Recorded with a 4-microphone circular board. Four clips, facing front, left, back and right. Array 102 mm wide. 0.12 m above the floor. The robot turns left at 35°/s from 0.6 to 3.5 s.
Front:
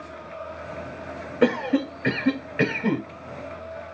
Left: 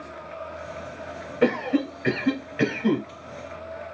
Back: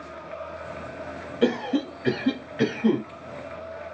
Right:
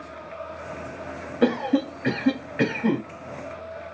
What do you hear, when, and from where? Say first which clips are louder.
1.4 s a cough: right 1 dB, front 2 dB; 10° left, 1.8 m; by 3.0 s 45° right, 1.8 m